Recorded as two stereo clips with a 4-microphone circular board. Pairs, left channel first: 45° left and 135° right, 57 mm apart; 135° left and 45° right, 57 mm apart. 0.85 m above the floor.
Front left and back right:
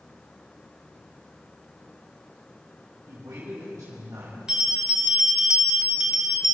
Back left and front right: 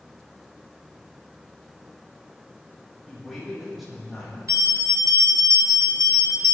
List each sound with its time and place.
3.1 s a man speaking: 135° right, 5.5 m
4.5 s a bell: 60° right, 2.5 m